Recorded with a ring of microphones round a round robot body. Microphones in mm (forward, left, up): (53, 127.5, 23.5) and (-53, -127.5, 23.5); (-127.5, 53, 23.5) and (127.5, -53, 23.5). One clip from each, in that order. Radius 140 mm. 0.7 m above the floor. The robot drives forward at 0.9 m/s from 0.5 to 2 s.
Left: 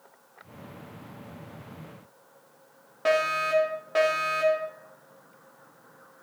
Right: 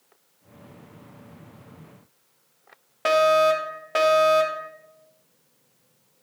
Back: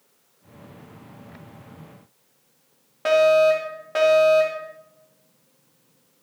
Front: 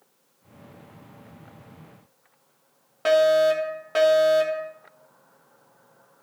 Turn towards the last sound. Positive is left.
turn(degrees=-80)